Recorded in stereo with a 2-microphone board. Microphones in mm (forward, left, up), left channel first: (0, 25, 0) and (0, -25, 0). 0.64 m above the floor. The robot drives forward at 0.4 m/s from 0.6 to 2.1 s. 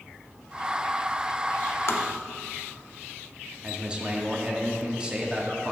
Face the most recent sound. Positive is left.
turn(degrees=-20)  # may be behind; listen again after turning